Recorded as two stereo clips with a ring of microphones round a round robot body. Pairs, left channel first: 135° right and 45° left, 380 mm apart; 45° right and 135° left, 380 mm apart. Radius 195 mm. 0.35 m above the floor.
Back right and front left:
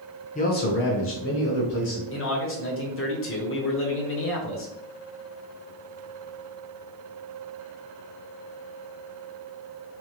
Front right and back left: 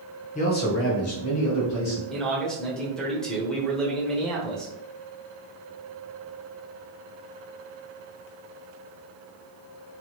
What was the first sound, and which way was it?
A man speaking, 90° right.